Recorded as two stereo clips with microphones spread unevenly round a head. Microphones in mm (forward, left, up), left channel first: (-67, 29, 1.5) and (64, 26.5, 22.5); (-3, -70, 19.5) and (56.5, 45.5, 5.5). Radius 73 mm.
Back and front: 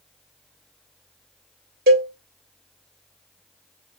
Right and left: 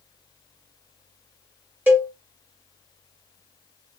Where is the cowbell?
15° right, 1.3 m.